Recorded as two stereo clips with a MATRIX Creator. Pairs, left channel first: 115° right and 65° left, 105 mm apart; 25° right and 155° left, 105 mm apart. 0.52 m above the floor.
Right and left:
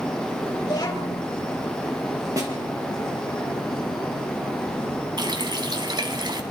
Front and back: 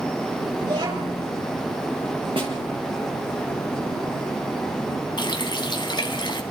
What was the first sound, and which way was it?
A child speaking, 165° right.